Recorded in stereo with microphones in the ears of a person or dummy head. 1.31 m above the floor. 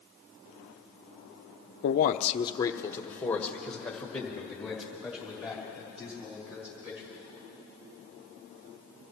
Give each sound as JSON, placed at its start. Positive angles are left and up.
{"t": 1.8, "sound": "a man speaking", "side_deg": 55, "distance_m": 0.6}